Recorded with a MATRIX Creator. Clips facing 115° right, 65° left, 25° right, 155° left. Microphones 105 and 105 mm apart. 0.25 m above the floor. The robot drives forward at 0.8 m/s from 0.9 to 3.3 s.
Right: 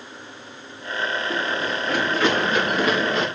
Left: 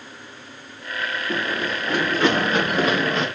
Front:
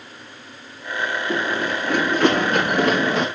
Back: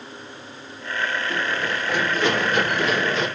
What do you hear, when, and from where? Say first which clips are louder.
1.3 s running footsteps: even, front 3 dB; 15° left, 9.5 m; by 3.3 s 10° left, 8.5 m